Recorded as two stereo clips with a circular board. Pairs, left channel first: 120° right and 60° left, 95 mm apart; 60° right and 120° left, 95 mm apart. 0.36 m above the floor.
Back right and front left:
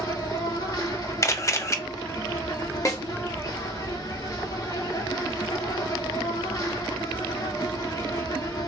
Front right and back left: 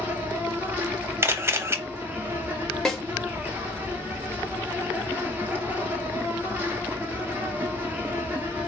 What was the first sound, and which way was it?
An insect, 170° right.